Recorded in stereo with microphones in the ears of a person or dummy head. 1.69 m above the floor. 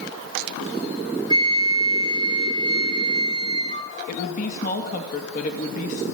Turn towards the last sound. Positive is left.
turn(degrees=45)  # may be behind; listen again after turning